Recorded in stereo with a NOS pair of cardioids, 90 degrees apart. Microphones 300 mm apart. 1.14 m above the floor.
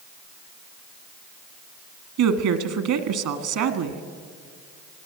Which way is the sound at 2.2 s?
70° right.